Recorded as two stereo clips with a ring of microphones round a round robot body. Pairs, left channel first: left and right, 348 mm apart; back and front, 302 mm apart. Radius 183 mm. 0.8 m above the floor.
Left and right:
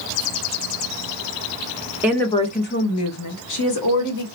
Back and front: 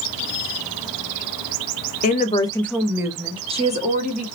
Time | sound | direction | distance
2.0 | a woman speaking | 170° right | 0.6 m